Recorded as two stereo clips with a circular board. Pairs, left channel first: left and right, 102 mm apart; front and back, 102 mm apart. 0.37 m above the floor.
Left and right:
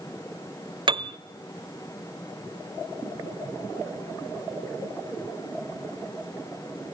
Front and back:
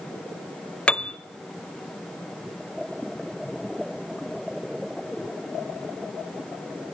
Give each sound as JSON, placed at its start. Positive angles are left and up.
{"t": 0.9, "sound": "a piano", "azimuth_deg": -75, "distance_m": 0.6}